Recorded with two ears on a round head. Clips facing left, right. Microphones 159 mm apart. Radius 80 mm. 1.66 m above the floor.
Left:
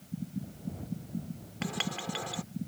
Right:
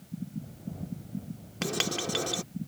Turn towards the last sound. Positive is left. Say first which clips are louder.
# right 4 dB
turn(degrees=-55)  # may be behind; listen again after turning